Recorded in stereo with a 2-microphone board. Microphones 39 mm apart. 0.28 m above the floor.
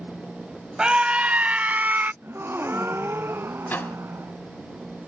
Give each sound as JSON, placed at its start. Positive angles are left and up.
{"t": 0.8, "sound": "a scream", "side_deg": -25}
{"t": 2.2, "sound": "a gasp", "side_deg": -75}
{"t": 3.7, "sound": "a microwave", "side_deg": 55}